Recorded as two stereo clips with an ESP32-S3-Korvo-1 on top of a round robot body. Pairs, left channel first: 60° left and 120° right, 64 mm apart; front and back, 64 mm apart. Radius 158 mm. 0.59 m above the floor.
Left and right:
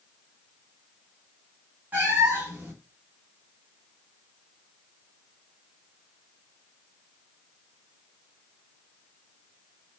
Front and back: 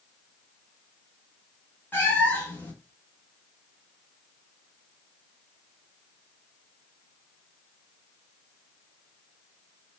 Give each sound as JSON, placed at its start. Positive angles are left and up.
{"t": 1.9, "sound": "a cat meowing", "azimuth_deg": -60, "distance_m": 0.8}